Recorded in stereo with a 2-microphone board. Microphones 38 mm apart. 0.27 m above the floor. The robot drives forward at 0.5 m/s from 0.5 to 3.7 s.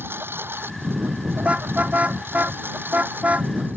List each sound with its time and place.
0.0 s a lawn mower: 85° right; by 3.8 s 65° right (ahead or behind)
1.4 s a car horn: 40° right (ahead or behind); by 3.5 s 45° right (ahead or behind)